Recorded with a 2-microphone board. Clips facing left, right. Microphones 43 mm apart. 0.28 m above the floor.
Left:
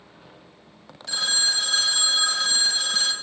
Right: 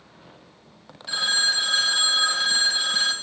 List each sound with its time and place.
1.1 s a phone ringing: 10° right (ahead or behind), 1.0 m